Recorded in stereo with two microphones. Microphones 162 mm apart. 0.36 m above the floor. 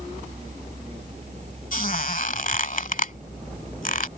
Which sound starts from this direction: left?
A squeak, at 1.7 s.